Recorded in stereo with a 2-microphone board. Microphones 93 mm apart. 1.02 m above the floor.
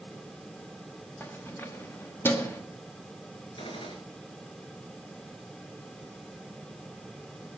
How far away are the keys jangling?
About 1.3 m.